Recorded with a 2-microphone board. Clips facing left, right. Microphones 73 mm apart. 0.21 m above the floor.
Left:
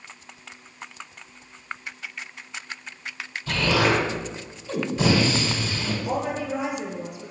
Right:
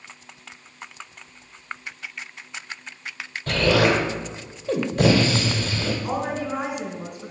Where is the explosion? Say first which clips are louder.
Right 3 dB; 65° right (ahead or behind), 1.9 m.